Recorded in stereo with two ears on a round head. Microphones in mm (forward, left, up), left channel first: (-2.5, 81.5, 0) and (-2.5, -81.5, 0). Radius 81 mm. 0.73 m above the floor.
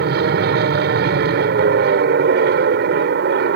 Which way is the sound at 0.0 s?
60° right (ahead or behind).